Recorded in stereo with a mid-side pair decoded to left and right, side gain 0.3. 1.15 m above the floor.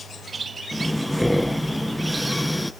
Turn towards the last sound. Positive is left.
turn(degrees=0)